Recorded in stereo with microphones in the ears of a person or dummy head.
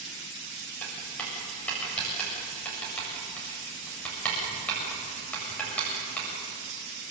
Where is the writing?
10° left (ahead or behind), 7.5 m.